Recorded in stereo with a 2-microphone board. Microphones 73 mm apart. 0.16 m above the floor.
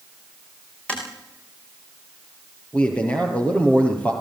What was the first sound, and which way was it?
Tapping, 15° left (ahead or behind).